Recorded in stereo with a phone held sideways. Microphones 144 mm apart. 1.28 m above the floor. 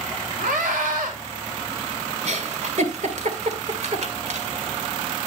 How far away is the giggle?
About 2 m.